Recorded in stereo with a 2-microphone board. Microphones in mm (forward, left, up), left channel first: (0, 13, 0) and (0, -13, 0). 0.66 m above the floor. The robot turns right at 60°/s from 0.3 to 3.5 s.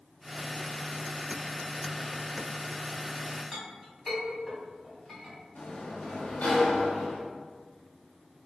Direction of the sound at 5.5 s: 70° left (ahead or behind).